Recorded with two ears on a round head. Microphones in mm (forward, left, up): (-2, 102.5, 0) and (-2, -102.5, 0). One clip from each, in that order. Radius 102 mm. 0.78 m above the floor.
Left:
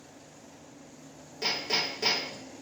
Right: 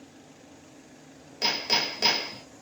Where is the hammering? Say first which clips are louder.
Right 3 dB; 35° right (ahead or behind), 1.4 m.